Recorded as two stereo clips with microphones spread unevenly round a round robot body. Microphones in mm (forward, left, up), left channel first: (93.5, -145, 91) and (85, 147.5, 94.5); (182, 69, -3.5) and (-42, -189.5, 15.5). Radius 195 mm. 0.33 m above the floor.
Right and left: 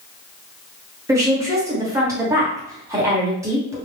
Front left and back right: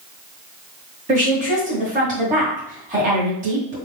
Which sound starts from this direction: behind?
A woman speaking, at 1.1 s.